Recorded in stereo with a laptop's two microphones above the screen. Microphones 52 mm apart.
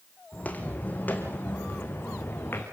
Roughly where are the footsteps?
Left.